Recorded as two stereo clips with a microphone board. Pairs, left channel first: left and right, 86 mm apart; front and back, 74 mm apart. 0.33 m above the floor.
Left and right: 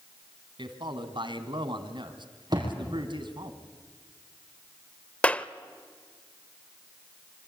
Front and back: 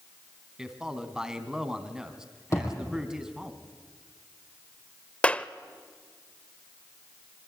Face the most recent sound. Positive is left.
turn(degrees=45)